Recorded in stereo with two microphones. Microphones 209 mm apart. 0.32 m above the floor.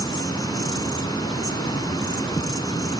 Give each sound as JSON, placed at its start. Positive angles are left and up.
{"t": 0.0, "sound": "an insect", "side_deg": 20, "distance_m": 0.8}